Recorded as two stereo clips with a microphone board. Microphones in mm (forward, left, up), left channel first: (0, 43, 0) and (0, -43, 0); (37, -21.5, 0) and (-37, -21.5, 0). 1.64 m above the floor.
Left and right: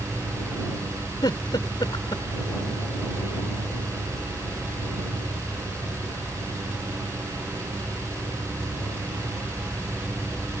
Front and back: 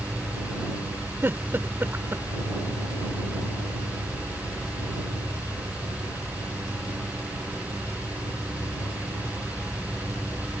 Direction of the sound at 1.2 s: 120° left.